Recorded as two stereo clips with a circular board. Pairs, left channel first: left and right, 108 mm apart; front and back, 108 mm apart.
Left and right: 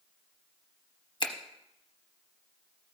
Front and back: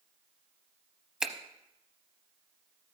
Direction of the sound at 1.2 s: 100° left.